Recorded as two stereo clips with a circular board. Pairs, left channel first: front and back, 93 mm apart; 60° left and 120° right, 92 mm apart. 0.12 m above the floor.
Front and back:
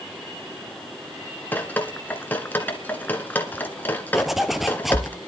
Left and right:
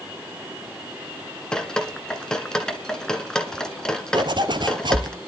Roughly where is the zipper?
Right.